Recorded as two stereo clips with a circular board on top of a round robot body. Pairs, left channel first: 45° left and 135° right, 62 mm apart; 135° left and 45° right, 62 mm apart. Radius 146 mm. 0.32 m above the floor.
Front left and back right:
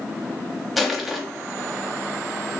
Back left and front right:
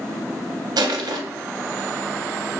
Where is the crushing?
45° right, 0.6 m.